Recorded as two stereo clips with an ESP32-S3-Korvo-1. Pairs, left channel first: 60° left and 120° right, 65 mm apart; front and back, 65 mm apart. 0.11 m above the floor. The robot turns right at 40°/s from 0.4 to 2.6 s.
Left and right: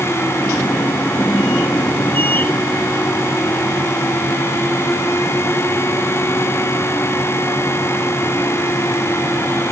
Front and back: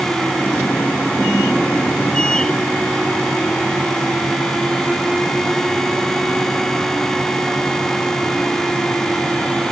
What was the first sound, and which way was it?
Only background noise.